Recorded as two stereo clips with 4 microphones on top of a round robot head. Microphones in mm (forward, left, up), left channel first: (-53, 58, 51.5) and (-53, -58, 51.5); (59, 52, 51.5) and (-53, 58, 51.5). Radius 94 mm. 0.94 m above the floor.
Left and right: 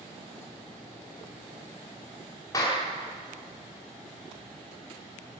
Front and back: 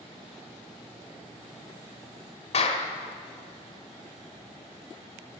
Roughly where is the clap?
Ahead.